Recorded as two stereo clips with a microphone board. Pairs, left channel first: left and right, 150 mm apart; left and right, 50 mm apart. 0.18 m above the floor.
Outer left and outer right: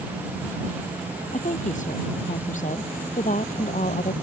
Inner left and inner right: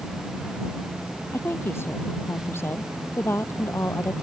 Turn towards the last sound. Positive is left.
turn(degrees=55)  # may be behind; listen again after turning